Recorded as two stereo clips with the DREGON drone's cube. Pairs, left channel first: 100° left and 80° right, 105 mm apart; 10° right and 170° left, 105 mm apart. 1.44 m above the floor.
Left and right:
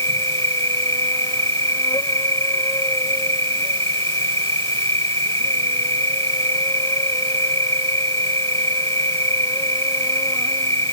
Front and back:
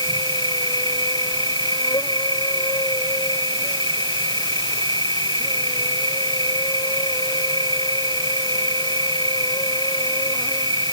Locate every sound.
0.0 s an insect: 40° left